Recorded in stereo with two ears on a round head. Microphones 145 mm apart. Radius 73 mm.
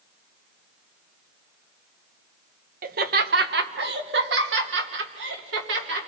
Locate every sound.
2.8 s laughter: 60° right (ahead or behind), 1.1 m; by 6.1 s 80° right, 4 m